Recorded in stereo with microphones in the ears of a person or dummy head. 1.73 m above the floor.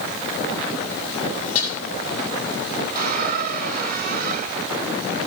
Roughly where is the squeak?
Right.